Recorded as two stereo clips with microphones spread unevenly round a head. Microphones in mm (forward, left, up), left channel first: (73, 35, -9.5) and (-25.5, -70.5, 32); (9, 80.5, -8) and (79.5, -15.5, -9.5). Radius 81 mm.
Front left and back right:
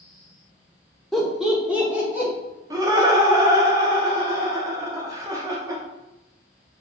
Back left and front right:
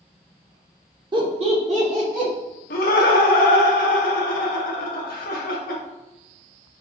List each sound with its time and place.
1.1 s laughter: 20° right, 0.9 m; by 2.3 s 50° right, 2.0 m
2.7 s laughter: 155° left, 0.7 m